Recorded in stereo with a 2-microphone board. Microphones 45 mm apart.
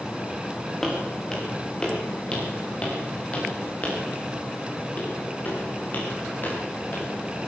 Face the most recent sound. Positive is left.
turn(degrees=50)  # may be behind; listen again after turning